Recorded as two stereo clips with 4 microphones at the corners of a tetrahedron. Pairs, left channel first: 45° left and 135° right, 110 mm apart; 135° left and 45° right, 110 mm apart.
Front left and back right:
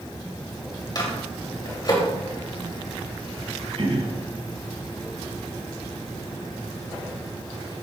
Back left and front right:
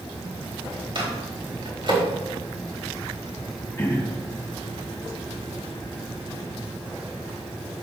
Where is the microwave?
5° right, 3 m.